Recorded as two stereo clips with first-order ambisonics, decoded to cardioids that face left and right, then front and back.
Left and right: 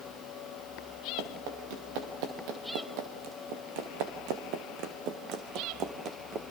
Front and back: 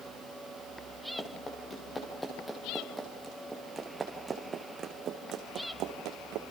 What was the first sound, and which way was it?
Running footsteps, 75° right.